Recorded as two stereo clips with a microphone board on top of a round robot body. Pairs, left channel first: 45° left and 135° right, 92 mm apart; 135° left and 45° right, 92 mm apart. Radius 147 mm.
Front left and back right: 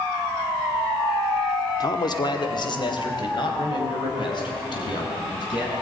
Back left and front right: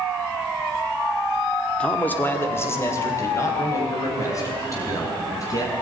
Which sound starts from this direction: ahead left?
A man speaking, at 1.8 s.